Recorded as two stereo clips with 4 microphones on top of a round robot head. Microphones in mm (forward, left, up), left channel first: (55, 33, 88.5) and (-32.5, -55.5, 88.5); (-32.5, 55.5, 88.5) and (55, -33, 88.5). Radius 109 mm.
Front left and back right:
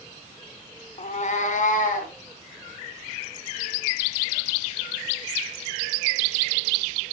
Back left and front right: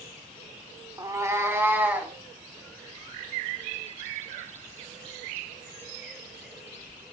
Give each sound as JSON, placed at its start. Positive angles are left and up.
{"t": 1.0, "sound": "a cat meowing", "azimuth_deg": 15, "distance_m": 0.9}